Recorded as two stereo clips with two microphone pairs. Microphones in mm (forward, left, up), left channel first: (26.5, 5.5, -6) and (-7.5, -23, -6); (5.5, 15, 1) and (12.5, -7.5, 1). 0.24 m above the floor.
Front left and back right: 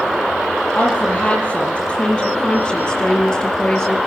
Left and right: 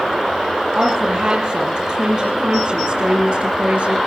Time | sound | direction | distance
0.8 | a woman speaking | 20° right | 7 m